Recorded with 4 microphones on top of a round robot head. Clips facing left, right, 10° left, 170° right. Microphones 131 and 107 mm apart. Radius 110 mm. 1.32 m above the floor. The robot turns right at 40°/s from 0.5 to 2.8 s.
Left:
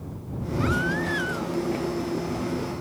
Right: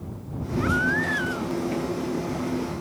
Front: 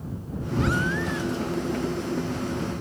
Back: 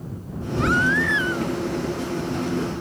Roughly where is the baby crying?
Behind left.